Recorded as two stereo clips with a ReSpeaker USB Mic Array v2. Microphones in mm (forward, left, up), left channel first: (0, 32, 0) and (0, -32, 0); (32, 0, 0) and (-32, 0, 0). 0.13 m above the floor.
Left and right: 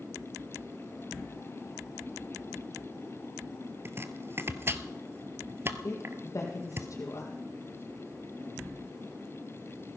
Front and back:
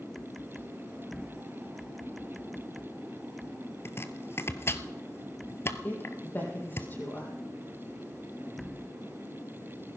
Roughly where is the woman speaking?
Ahead left.